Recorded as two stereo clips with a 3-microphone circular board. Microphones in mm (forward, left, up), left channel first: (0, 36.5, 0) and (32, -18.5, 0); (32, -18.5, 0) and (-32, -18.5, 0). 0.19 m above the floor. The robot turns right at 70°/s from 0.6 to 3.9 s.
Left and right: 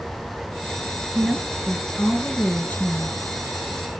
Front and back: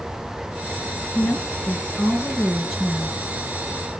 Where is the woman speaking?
15° right, 1.6 m; by 3.2 s 125° left, 1.6 m.